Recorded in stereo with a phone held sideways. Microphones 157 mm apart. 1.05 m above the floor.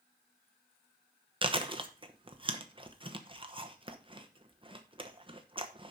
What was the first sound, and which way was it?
Chewing, 35° right (ahead or behind).